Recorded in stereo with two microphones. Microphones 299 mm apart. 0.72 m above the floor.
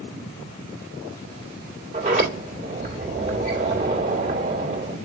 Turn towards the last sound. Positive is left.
turn(degrees=-25)  # may be behind; listen again after turning